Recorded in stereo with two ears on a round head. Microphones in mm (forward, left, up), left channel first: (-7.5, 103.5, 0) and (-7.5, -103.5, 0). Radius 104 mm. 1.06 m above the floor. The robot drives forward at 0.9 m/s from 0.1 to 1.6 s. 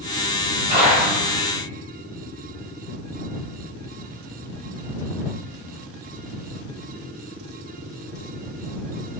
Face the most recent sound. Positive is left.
turn(degrees=-20)  # may be behind; listen again after turning